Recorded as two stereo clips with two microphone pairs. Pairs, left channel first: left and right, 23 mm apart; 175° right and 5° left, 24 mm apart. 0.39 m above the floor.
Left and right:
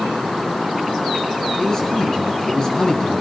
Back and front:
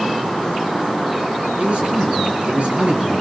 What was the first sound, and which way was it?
A man speaking, 30° left.